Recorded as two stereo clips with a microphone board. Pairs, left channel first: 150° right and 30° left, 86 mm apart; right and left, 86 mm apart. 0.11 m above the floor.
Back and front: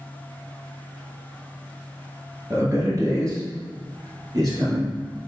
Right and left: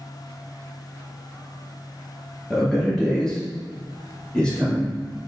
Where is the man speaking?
5° right, 2.0 m; by 5.0 s 10° right, 3 m.